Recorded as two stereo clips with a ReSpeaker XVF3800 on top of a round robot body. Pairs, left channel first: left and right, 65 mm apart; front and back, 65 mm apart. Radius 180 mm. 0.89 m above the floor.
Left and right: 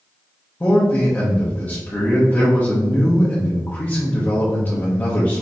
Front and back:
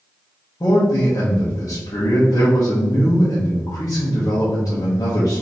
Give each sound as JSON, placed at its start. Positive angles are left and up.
{"t": 0.6, "sound": "a man speaking", "azimuth_deg": 35, "distance_m": 1.1}